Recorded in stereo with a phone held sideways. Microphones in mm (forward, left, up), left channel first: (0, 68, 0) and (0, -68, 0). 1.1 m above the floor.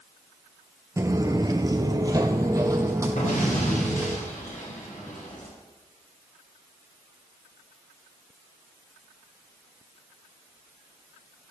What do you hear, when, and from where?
1.0 s footsteps: 20° right (ahead or behind), 1.2 m
3.2 s an explosion: 75° left (ahead or behind), 8.5 m